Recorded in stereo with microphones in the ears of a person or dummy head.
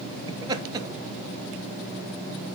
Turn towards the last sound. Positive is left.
turn(degrees=-15)  # may be behind; listen again after turning